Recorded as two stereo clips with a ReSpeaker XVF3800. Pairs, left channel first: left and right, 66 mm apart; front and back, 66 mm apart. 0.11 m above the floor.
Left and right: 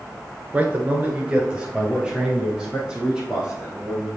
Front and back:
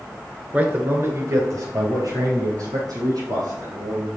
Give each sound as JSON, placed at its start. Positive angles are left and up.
{"t": 0.5, "sound": "a man speaking", "azimuth_deg": -130, "distance_m": 1.4}